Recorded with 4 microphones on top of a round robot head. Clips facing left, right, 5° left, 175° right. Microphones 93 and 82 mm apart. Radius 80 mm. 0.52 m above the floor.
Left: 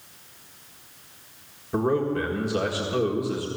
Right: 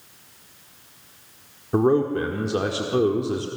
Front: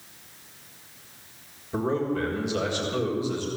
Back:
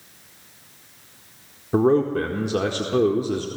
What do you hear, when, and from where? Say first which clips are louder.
1.7 s a man speaking: right 4 dB, back 8 dB; 145° right, 1.6 m